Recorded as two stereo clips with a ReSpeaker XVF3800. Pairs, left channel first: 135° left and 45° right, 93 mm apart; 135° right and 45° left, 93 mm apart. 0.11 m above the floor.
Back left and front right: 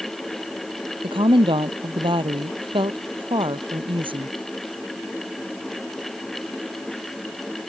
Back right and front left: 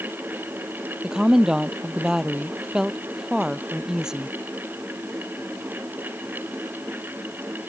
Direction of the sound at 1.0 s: 40° right.